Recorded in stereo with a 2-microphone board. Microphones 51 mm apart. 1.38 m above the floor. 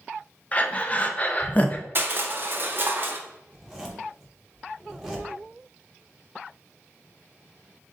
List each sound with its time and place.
0.5 s breathing: 30° left (ahead or behind), 0.5 m
1.9 s crushing: 45° right (ahead or behind), 0.7 m
3.5 s a zipper: 15° right (ahead or behind), 1.0 m